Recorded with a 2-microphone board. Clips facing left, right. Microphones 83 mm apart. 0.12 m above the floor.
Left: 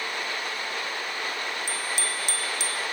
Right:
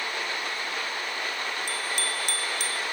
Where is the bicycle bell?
55° right (ahead or behind), 3 m; by 2.8 s 50° right (ahead or behind), 3.5 m.